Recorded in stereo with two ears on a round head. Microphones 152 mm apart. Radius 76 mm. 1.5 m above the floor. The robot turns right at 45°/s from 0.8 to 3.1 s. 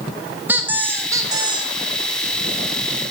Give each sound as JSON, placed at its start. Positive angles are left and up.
{"t": 0.5, "sound": "a squeak", "azimuth_deg": -160, "distance_m": 0.6}